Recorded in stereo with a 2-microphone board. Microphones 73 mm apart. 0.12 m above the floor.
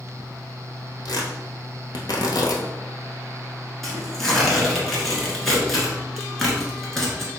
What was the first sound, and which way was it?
Tearing paper, 65° left (ahead or behind).